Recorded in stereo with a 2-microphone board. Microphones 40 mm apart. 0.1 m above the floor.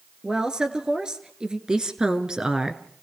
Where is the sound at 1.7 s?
20° right (ahead or behind), 1.6 m.